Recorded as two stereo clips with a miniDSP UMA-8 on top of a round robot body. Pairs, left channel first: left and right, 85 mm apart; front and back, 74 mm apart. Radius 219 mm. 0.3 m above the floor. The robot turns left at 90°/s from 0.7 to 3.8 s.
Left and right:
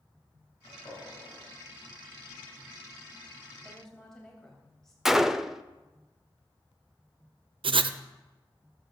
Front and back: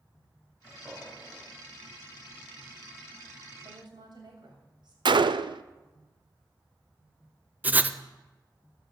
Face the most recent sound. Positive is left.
turn(degrees=-110)